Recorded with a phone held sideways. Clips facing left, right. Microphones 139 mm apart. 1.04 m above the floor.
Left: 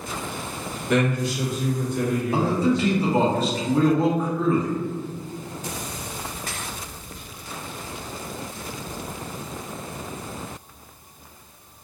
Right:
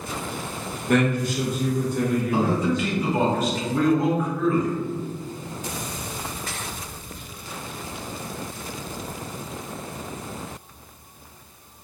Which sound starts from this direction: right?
A man speaking, at 0.9 s.